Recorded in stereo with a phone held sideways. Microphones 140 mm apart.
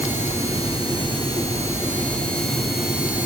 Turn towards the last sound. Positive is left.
No sound to turn to.